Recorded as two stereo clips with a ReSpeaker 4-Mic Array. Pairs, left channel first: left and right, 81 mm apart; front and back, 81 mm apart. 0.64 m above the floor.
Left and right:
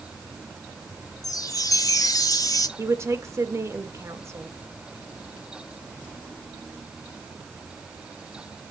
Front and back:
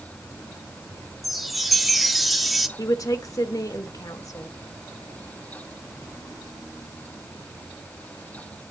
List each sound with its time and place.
1.2 s a chime: 90° left, 1.1 m
2.8 s a woman speaking: 40° right, 1.6 m